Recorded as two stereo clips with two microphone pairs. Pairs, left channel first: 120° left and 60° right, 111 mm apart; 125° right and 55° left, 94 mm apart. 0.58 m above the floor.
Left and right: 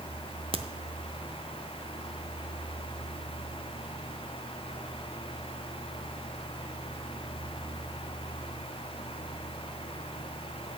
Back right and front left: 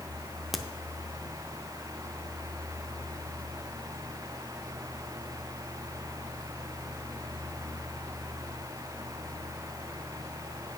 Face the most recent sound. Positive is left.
turn(degrees=-40)